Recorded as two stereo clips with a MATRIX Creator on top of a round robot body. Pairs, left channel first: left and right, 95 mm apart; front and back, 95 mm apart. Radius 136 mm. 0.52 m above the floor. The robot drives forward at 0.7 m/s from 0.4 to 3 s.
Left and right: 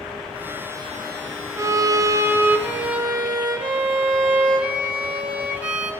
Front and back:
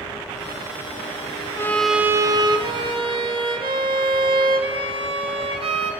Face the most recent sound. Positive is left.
turn(degrees=-165)